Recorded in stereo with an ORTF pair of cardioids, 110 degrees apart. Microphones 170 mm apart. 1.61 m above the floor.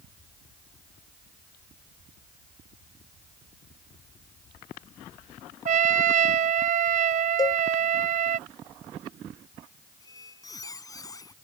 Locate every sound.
5.7 s a trumpet: 50° right
7.4 s a cowbell: 20° left
10.0 s a squeak: 20° left